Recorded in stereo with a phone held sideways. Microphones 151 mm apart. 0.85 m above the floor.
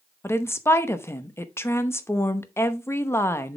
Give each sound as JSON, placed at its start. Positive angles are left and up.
{"t": 0.2, "sound": "a woman speaking", "side_deg": 15, "distance_m": 0.8}